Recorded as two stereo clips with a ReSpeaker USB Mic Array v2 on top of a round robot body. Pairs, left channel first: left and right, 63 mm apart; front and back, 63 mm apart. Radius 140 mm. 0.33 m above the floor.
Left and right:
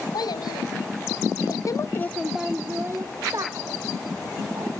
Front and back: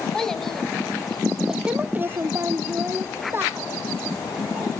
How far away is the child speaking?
About 1.8 m.